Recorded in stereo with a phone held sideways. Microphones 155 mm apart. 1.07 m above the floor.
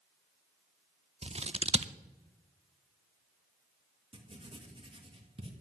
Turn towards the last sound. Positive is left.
turn(degrees=-35)  # may be behind; listen again after turning